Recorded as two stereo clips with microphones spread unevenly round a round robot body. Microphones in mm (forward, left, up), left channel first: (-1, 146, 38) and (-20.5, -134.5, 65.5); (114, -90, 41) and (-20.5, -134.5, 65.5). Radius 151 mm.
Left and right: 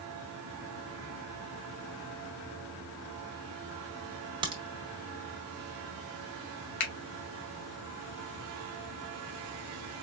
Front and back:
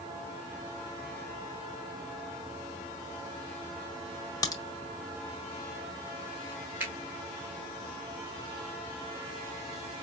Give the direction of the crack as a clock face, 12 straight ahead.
1 o'clock.